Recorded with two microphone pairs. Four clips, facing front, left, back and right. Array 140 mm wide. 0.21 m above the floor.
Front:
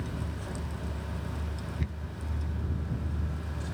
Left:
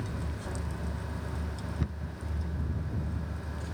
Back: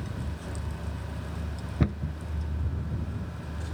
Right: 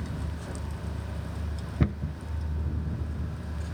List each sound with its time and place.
1.8 s a cupboard door: 135° right